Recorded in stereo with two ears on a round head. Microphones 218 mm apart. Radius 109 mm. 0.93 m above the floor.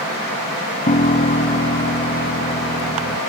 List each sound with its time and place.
0.9 s a piano: 30° left (ahead or behind)